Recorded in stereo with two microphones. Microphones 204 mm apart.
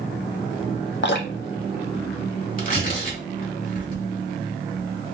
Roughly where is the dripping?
Left.